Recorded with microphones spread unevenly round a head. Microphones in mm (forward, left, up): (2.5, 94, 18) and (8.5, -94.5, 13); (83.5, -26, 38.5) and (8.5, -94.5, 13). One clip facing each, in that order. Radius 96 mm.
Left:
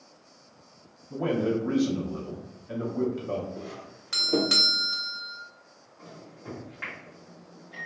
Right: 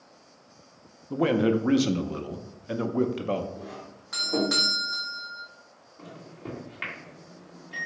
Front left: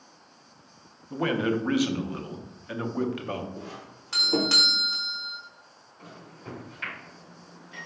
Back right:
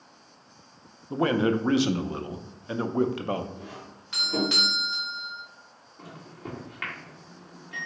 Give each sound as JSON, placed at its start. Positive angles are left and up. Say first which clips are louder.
{"t": 1.1, "sound": "a man speaking", "louder": "right 4 dB, back right 2 dB", "azimuth_deg": -80, "distance_m": 0.5}
{"t": 3.6, "sound": "a doorbell", "louder": "left 1 dB, front left 1 dB", "azimuth_deg": 90, "distance_m": 0.6}
{"t": 6.0, "sound": "a microwave", "louder": "right 4 dB, back right 3 dB", "azimuth_deg": -140, "distance_m": 1.6}